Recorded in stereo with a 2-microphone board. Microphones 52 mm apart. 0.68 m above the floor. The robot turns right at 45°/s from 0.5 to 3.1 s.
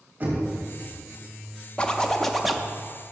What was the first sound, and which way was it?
Knocking, 35° right (ahead or behind).